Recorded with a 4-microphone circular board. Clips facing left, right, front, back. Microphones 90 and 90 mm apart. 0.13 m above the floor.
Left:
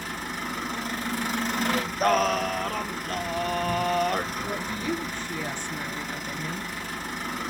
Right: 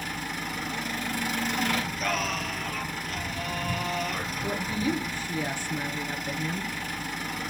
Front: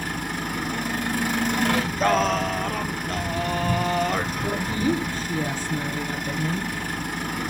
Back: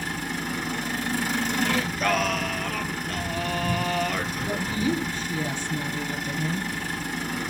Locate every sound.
0.0 s an engine running: 35° left, 8 m
1.6 s singing: 50° left, 0.7 m
4.4 s a woman speaking: 15° right, 2 m